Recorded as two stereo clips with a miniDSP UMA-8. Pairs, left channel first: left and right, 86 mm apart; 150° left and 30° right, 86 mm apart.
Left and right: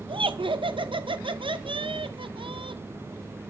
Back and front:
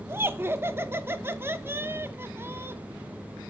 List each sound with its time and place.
0.1 s laughter: 90° right, 0.6 m